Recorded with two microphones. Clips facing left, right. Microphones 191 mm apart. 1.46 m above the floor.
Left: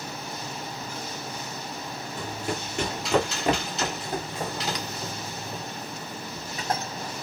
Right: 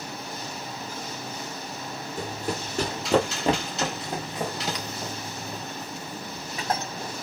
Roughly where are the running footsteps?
Right.